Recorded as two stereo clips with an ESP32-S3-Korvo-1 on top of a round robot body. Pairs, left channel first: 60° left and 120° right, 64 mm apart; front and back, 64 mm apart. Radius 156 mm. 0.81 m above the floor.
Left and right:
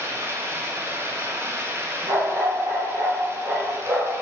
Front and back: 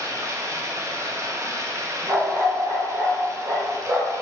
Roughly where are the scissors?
No scissors in this recording.